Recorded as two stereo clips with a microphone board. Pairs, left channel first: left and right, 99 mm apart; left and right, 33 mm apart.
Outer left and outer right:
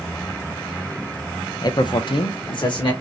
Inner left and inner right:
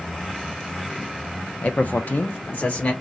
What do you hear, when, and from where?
1.6 s a man speaking: 40° left (ahead or behind), 0.6 m; by 2.9 s 50° left (ahead or behind), 1.1 m